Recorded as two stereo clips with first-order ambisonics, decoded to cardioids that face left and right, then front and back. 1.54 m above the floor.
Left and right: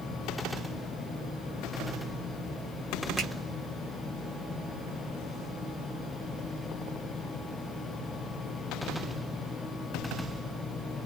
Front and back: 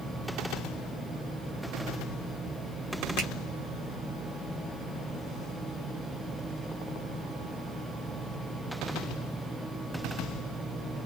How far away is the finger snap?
About 1.3 m.